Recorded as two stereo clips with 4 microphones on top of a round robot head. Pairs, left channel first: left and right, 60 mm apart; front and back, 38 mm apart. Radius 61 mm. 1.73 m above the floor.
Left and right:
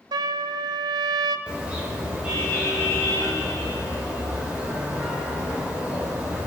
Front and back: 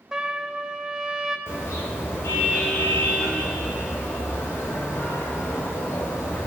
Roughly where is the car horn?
Ahead.